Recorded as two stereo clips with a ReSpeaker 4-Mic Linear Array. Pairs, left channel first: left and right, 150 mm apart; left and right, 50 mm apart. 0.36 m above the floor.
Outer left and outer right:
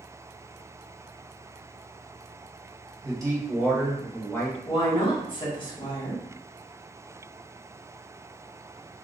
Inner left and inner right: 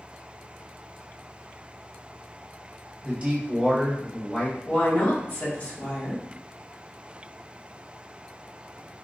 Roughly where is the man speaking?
Right.